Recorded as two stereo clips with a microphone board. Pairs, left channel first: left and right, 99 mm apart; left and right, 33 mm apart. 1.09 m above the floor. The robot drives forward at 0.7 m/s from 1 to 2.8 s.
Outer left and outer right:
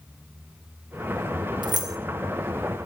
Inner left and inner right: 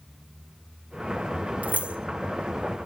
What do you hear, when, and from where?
1.6 s keys jangling: 50° right (ahead or behind), 0.6 m; by 2.0 s 40° right (ahead or behind), 0.8 m